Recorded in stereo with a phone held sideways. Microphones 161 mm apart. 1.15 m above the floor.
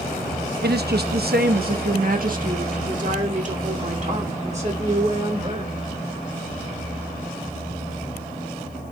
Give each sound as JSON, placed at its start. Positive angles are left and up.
{"t": 0.6, "sound": "a woman speaking", "side_deg": -85, "distance_m": 1.0}